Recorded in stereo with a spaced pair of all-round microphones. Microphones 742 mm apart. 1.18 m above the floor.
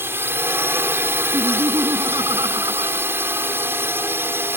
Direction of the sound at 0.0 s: 5° right (ahead or behind).